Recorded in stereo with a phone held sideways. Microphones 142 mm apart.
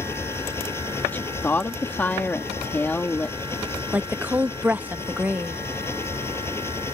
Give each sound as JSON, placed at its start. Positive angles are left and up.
{"t": 0.0, "sound": "an engine running", "side_deg": 15}
{"t": 1.1, "sound": "a woman speaking", "side_deg": 15}
{"t": 3.9, "sound": "a woman speaking", "side_deg": -10}